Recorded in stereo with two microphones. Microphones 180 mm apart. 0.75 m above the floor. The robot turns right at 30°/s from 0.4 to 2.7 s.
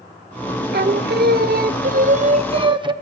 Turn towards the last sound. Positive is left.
turn(degrees=-30)